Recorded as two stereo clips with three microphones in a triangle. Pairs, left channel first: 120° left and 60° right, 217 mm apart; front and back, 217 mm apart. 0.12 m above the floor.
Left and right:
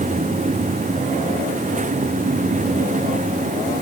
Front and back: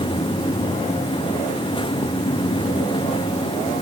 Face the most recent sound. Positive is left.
No sound to turn to.